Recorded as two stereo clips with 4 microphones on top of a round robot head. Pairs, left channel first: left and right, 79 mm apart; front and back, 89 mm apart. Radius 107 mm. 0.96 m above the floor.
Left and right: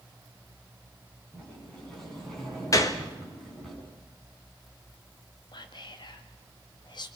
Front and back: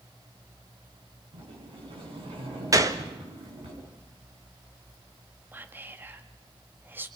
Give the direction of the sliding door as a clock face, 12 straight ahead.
6 o'clock.